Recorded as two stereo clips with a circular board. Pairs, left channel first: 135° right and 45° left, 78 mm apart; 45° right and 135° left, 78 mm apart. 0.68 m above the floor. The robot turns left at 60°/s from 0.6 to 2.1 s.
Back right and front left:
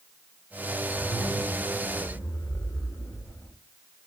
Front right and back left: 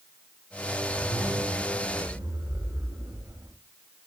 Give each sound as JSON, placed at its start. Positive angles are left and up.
{"t": 0.9, "sound": "a zipper", "azimuth_deg": -110, "distance_m": 3.0}